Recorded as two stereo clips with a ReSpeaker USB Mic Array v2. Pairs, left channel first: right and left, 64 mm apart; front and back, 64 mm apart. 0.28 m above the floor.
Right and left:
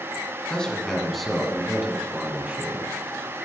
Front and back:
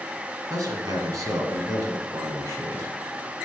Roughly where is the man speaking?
Behind.